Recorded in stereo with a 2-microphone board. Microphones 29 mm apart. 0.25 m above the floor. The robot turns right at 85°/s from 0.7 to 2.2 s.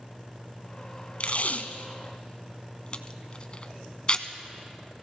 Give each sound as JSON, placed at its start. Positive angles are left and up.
{"t": 1.2, "sound": "tape being pulled", "side_deg": 50, "distance_m": 0.7}